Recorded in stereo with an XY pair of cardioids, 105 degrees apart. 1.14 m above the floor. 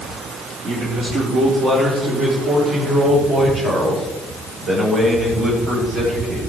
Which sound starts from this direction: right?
A man speaking, at 0.6 s.